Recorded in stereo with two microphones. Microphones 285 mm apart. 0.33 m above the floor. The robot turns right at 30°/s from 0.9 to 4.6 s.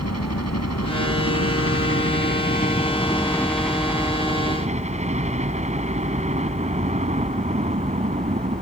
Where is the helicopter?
95° left; by 8.6 s 155° right.